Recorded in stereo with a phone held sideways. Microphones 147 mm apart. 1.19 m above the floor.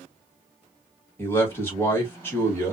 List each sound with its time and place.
1.2 s a man speaking: 15° left (ahead or behind), 1.4 m